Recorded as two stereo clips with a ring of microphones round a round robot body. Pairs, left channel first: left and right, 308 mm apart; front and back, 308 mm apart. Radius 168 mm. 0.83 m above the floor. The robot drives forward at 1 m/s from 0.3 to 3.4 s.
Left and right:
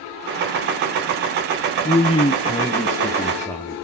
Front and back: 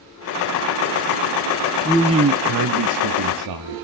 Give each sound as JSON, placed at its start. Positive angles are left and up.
{"t": 1.9, "sound": "a man speaking", "azimuth_deg": 65, "distance_m": 0.6}